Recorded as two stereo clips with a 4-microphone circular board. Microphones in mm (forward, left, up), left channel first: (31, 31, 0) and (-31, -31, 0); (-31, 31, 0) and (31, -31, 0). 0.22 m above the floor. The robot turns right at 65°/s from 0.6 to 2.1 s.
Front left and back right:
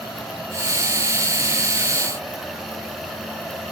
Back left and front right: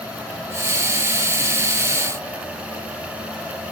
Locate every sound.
Only background noise.